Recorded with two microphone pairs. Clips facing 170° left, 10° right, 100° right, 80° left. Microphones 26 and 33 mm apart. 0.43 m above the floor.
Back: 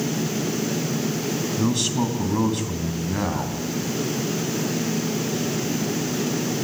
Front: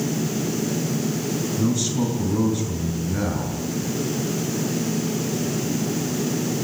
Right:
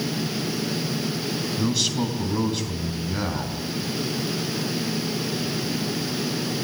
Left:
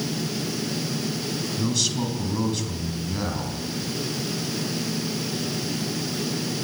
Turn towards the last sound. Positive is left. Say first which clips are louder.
# even, right 2 dB
turn(degrees=175)